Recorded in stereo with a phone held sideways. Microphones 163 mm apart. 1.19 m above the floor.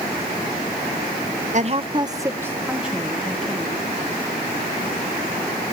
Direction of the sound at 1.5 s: 50° right (ahead or behind).